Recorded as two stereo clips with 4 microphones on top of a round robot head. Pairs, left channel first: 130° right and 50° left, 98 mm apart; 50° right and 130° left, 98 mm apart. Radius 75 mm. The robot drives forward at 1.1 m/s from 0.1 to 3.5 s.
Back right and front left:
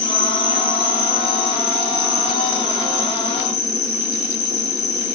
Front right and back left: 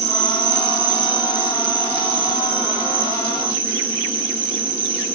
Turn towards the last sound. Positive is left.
turn(degrees=170)